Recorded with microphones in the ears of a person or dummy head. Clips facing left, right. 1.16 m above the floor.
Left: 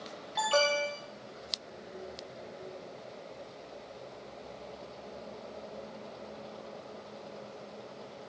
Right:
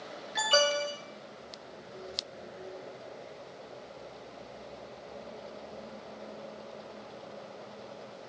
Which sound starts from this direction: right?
An alarm, at 0.3 s.